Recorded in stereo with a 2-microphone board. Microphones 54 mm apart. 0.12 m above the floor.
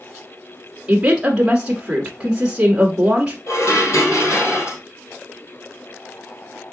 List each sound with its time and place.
0.9 s a woman speaking: 15° right (ahead or behind), 1.1 m
3.5 s dishes clattering: 60° left (ahead or behind), 2 m